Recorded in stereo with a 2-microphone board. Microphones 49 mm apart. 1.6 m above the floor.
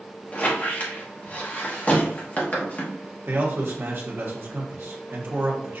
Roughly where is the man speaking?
Right.